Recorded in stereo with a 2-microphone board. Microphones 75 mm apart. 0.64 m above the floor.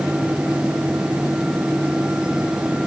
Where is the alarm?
I don't hear an alarm.